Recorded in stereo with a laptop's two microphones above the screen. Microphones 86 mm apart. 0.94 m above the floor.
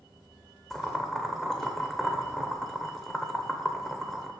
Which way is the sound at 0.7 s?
5° left (ahead or behind).